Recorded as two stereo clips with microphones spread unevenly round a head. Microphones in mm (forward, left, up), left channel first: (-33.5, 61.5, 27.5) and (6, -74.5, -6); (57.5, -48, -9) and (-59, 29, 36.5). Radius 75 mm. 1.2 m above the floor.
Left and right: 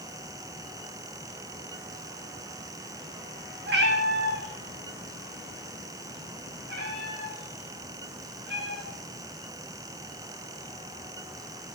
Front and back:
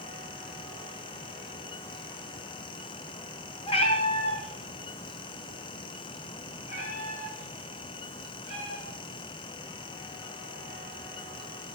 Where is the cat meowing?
90° right, 3 m; by 9.2 s 80° right, 8.5 m.